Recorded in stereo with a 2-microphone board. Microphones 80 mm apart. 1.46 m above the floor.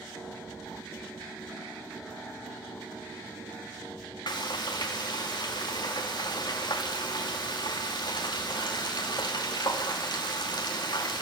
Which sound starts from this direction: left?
Frying, at 4.3 s.